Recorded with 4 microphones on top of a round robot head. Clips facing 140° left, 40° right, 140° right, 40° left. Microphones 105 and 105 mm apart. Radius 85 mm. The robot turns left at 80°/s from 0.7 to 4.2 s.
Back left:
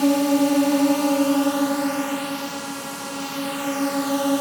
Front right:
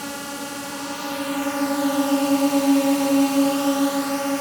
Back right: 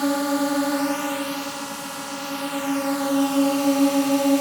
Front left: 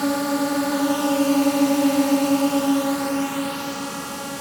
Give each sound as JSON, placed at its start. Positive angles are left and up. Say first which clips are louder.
{"t": 0.0, "sound": "a drone", "louder": "back left 14 dB, even", "azimuth_deg": 135}